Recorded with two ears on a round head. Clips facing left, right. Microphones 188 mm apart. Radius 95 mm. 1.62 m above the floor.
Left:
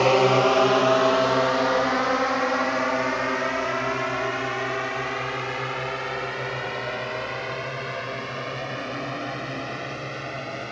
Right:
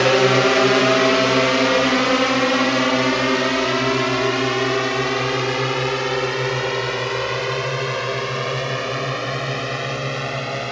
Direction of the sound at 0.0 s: 20° right (ahead or behind).